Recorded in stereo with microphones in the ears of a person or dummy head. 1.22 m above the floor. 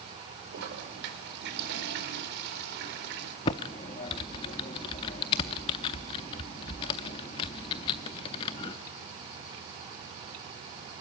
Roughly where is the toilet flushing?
Right.